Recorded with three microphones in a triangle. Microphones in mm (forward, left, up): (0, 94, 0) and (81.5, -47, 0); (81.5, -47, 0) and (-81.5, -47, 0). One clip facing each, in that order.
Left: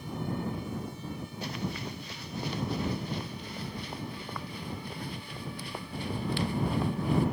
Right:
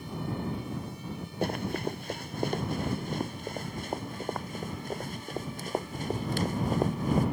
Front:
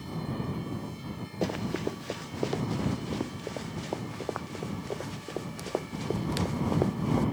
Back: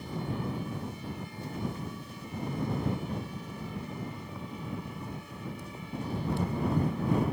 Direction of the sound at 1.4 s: 15° right.